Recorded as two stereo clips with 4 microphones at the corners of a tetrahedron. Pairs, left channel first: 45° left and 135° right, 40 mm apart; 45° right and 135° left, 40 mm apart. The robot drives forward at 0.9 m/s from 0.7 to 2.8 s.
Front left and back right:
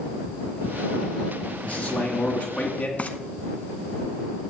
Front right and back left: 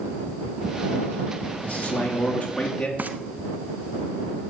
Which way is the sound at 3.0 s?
95° left.